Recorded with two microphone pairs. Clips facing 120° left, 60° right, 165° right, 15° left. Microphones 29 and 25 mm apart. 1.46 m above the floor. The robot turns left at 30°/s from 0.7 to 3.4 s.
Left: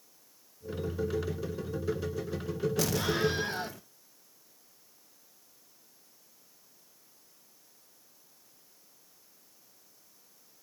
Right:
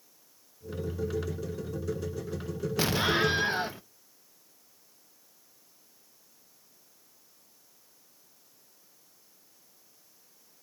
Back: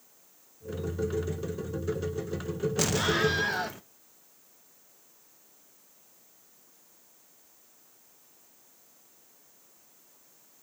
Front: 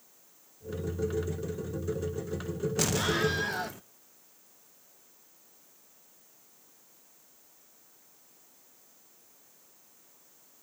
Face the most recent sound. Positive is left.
turn(degrees=-100)